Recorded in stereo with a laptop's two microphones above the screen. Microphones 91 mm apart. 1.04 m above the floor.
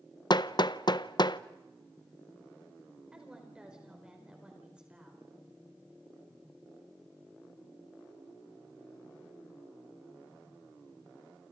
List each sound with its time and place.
0.3 s hammering: 55° left (ahead or behind), 0.6 m
3.1 s a woman speaking: 10° right (ahead or behind), 4.5 m